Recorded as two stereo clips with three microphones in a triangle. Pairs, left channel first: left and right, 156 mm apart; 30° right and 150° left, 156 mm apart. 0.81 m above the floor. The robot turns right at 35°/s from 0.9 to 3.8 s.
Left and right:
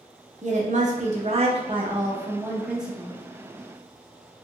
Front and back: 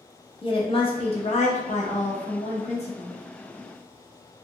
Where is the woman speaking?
75° right, 0.8 m; by 3.1 s 5° left, 0.8 m.